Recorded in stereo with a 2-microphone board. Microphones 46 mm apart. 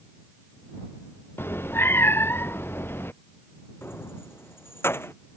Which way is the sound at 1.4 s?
55° left (ahead or behind).